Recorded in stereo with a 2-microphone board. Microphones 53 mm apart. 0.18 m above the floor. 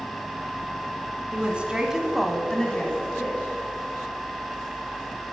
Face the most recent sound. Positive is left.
turn(degrees=25)  # may be behind; listen again after turning